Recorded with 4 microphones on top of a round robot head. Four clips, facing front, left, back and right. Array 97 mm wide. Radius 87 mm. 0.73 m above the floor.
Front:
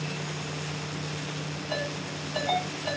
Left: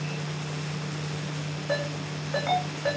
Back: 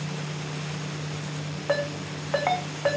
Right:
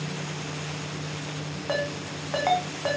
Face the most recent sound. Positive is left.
turn(degrees=-150)